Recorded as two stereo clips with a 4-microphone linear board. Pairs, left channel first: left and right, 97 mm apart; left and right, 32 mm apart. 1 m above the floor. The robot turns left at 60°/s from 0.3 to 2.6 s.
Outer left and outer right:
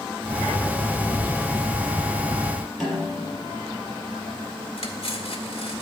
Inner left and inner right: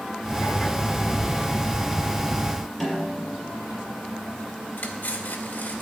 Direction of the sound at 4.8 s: 70° left (ahead or behind).